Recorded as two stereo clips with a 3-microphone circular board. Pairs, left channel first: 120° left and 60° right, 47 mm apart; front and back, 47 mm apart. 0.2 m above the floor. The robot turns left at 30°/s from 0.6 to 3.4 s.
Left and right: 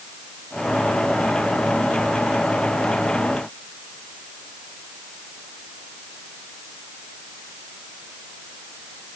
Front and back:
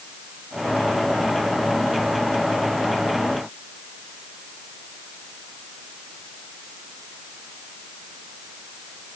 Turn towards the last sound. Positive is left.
No sound to turn to.